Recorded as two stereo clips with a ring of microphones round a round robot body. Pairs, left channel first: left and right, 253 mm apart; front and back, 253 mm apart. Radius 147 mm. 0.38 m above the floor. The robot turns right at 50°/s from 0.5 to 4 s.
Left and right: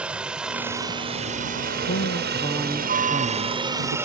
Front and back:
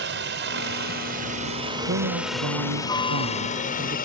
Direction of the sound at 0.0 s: 175° right.